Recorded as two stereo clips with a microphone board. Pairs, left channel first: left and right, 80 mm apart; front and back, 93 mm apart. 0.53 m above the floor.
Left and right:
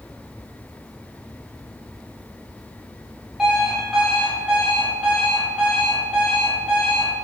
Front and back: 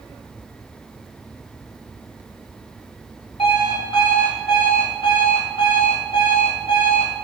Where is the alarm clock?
5° right, 1.9 m.